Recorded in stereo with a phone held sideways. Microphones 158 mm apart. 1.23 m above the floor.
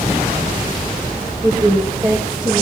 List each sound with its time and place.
1.4 s a woman speaking: 25° right (ahead or behind), 1.8 m